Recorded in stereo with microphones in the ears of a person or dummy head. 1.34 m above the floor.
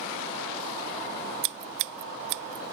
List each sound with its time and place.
1.4 s scissors: 65° right (ahead or behind)